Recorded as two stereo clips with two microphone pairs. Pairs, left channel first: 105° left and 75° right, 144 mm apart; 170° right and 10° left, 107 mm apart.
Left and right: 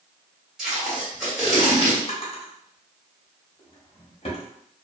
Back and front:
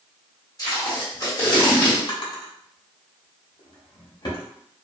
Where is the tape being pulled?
160° right, 1.5 m.